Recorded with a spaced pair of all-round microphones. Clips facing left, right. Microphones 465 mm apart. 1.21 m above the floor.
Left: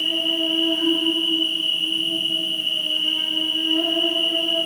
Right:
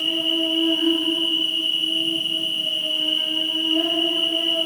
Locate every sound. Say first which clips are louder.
0.0 s an insect: right 1 dB; 5° right (ahead or behind), 1.3 m